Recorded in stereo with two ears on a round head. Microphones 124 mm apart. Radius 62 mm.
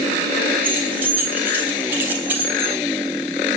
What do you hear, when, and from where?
0.6 s keys jangling: 15° right (ahead or behind), 4 m